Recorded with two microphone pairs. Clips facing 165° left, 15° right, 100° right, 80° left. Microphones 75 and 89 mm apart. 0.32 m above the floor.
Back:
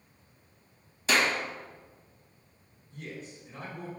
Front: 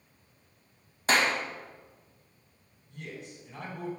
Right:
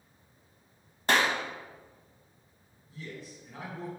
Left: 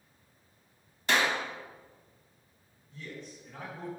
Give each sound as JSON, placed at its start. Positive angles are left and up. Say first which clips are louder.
{"t": 1.1, "sound": "a clap", "louder": "front 1 dB, right 2 dB", "azimuth_deg": -60, "distance_m": 1.3}
{"t": 2.9, "sound": "a man speaking", "louder": "back 1 dB, right 1 dB", "azimuth_deg": -20, "distance_m": 3.0}